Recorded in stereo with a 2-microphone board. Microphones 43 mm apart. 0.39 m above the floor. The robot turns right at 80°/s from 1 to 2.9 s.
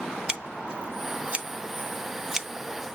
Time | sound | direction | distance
0.3 | scissors | 20° right (ahead or behind) | 0.6 m